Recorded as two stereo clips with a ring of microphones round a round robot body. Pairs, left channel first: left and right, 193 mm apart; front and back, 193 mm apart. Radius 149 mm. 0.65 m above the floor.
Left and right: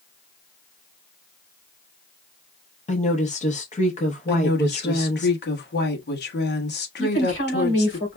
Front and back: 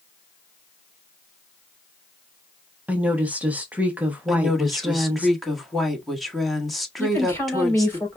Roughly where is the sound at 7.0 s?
Left.